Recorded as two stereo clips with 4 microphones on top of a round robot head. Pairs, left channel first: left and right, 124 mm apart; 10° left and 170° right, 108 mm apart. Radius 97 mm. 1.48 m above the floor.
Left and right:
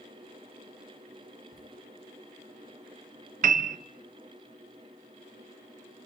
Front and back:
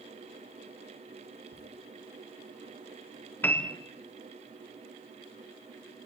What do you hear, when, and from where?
1.5 s laughter: 140° right, 10 m
3.4 s a piano: 70° right, 0.7 m